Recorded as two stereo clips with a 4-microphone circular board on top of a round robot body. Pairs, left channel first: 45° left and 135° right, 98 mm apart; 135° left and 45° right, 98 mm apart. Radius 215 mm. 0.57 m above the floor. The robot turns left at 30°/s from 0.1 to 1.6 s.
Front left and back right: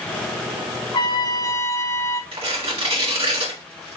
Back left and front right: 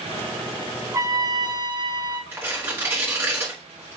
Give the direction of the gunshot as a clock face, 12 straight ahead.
I don't hear a gunshot.